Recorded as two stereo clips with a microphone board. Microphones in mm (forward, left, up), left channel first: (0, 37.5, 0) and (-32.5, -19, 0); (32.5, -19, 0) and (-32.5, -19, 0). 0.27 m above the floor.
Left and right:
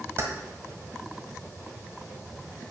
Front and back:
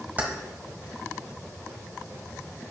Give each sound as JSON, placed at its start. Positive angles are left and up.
{"t": 0.2, "sound": "keys jangling", "azimuth_deg": -135, "distance_m": 1.3}